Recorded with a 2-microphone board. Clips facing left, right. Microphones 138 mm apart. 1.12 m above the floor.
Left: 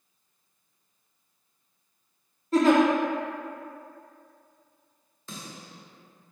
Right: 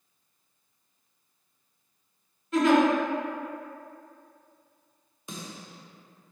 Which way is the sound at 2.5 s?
35° left (ahead or behind).